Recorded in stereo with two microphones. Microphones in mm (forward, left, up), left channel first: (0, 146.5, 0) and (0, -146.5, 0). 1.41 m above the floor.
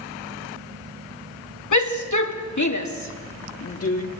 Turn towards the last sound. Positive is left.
turn(degrees=50)  # may be behind; listen again after turning